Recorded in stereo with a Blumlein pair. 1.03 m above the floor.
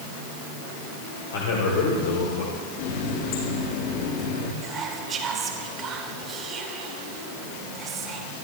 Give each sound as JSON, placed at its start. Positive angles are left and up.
{"t": 1.3, "sound": "a man speaking", "azimuth_deg": 65, "distance_m": 4.0}
{"t": 2.8, "sound": "a running tap", "azimuth_deg": 45, "distance_m": 9.0}
{"t": 4.6, "sound": "whispering", "azimuth_deg": -25, "distance_m": 4.0}